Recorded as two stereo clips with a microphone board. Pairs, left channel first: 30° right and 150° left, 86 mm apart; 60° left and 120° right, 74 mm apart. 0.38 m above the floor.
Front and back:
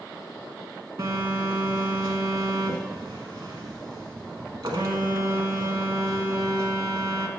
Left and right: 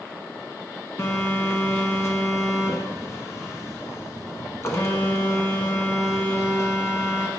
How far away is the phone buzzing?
About 1.0 m.